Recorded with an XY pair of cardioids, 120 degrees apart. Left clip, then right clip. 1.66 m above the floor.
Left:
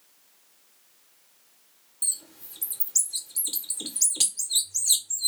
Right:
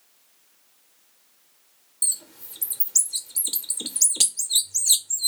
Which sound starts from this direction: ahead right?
A bird, at 2.0 s.